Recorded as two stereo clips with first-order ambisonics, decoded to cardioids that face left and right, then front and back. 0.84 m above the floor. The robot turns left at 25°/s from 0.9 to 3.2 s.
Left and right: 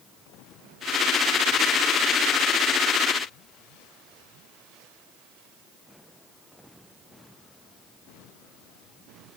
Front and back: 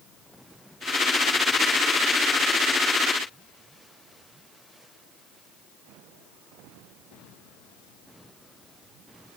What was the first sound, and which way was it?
Only background noise.